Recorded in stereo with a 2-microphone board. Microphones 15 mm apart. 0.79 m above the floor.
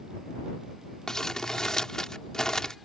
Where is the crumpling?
45° left (ahead or behind).